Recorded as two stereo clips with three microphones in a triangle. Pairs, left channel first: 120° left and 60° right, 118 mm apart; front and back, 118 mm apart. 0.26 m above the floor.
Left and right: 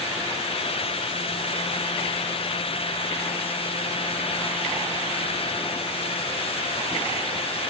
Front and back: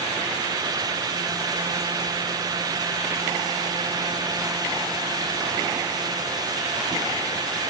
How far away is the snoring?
No snoring in this recording.